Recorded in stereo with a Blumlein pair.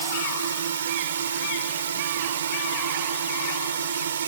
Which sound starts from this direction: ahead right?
A drone, at 0.0 s.